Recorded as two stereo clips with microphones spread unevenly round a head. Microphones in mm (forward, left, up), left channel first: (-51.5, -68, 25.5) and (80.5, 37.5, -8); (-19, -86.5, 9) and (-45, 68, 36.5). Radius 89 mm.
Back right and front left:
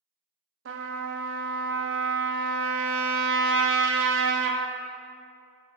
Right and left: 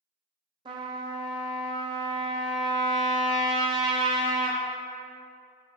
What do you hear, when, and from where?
0.7 s a trumpet: 45° left, 0.6 m